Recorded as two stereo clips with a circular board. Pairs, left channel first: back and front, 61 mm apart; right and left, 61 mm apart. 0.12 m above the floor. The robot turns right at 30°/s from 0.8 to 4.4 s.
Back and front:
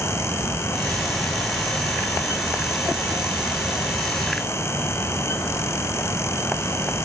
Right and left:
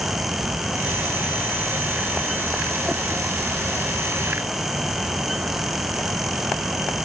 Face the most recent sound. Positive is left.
No sound to turn to.